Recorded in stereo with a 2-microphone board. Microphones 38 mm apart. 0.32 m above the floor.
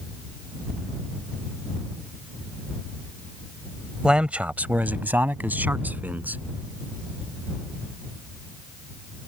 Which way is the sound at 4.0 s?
25° right (ahead or behind).